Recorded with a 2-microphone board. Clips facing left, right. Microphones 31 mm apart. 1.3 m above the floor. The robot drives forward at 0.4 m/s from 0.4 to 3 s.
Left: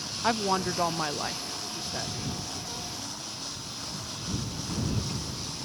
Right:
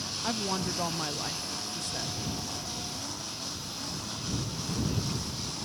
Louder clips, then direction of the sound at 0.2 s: Left 6 dB; 30° left (ahead or behind).